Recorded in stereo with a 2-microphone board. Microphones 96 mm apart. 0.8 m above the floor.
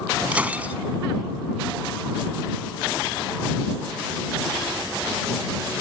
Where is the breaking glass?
15° right (ahead or behind).